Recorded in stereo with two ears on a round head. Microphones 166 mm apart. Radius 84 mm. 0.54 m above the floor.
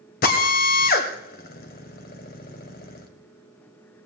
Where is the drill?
50° left (ahead or behind), 1.9 m.